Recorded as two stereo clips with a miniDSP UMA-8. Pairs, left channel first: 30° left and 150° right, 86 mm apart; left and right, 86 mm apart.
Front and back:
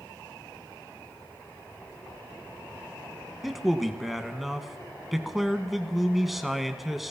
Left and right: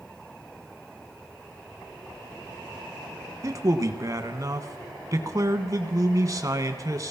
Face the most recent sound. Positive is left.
turn(degrees=-65)